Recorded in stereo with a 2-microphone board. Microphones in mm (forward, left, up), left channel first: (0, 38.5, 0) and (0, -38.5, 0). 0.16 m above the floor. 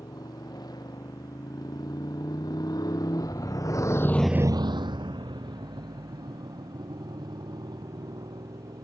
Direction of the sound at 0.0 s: 60° left (ahead or behind).